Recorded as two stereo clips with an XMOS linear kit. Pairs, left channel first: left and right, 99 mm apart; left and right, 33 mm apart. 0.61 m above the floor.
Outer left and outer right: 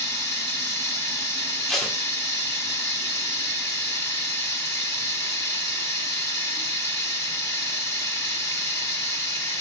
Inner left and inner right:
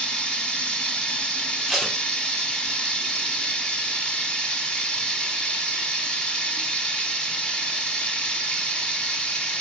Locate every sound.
0.0 s running water: 30° left (ahead or behind), 0.9 m
1.7 s tape being pulled: centre (ahead or behind), 0.8 m